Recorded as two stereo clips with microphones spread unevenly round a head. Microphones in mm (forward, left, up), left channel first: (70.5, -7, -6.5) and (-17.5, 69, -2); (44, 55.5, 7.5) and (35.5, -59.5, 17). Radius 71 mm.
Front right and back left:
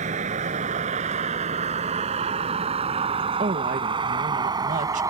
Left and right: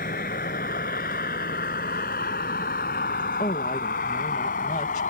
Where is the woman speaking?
130° left.